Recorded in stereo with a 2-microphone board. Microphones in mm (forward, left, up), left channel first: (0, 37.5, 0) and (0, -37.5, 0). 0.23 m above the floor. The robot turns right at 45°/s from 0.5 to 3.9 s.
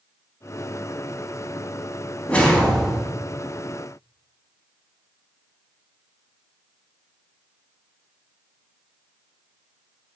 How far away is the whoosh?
About 0.8 m.